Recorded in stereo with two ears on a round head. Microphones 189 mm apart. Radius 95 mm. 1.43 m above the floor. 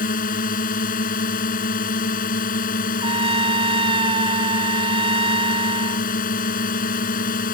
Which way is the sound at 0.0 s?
40° left (ahead or behind).